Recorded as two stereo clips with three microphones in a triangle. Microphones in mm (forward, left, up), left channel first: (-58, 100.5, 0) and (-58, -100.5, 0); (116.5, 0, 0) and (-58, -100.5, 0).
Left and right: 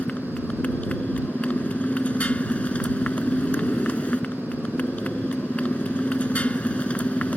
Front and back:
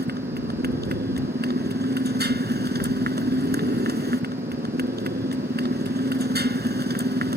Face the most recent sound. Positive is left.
turn(degrees=175)